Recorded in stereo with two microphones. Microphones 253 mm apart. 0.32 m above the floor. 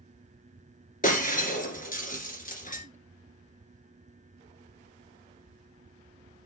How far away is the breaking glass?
About 2.5 m.